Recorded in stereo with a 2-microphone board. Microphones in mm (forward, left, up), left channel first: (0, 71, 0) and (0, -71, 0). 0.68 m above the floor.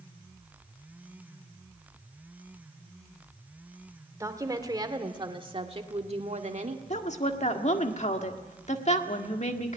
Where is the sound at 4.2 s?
25° right (ahead or behind), 2 m; by 6.8 s 60° right (ahead or behind), 1.5 m.